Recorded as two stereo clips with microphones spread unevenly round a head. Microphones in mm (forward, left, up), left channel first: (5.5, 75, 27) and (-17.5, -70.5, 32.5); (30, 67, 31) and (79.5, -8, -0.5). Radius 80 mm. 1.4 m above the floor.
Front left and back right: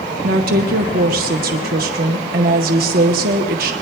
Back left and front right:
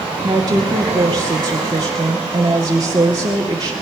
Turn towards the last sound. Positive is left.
turn(degrees=-125)